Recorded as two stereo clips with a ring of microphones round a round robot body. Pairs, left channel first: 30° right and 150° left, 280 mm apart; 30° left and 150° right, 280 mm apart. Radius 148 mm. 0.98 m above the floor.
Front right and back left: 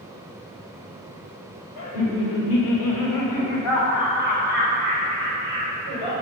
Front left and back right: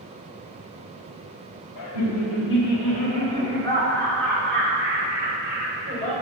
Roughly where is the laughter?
Ahead.